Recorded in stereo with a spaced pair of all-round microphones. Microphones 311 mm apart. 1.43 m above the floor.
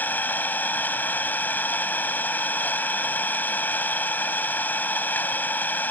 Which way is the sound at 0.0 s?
5° left (ahead or behind).